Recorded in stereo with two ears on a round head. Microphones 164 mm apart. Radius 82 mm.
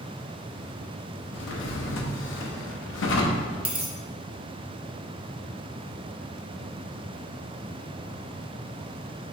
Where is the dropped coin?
5° right (ahead or behind), 0.6 m.